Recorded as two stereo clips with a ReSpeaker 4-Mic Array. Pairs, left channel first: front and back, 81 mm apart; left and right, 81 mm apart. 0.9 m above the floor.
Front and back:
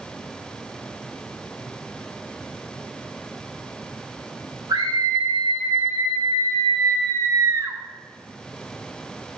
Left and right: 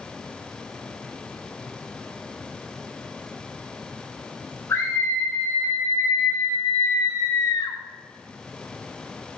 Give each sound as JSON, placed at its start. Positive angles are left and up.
{"t": 4.7, "sound": "a scream", "azimuth_deg": 150, "distance_m": 3.0}